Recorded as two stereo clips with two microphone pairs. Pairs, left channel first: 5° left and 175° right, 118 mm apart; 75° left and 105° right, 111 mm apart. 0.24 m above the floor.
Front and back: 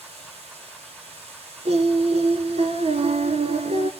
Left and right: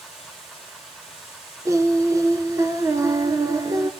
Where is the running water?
165° left, 6 m.